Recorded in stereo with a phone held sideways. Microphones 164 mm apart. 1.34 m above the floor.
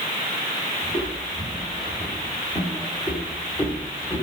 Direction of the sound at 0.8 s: 40° left (ahead or behind).